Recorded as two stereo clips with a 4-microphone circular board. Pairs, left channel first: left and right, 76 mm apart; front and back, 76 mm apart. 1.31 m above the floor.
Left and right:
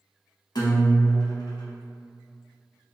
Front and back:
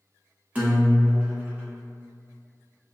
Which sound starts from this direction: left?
A guitar, at 0.6 s.